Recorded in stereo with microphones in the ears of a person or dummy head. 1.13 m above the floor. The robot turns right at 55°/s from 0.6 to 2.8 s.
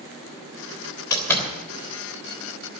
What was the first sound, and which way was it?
A door slam, 20° left (ahead or behind).